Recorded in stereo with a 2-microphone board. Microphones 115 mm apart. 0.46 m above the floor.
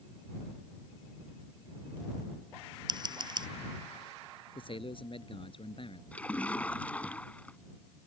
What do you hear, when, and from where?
2.9 s scissors: 40° right (ahead or behind)
4.5 s a man speaking: 50° left (ahead or behind)
6.1 s a splash: 10° left (ahead or behind)